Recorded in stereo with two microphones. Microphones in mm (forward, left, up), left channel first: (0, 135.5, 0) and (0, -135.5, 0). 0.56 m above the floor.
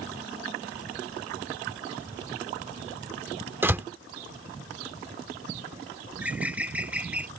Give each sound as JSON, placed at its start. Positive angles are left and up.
{"t": 3.6, "sound": "a door slam", "side_deg": -10}
{"t": 6.1, "sound": "a bird", "side_deg": -5}